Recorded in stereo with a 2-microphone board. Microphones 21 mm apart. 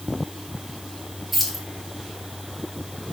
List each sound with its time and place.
1.3 s keys jangling: 5° right (ahead or behind), 1.1 m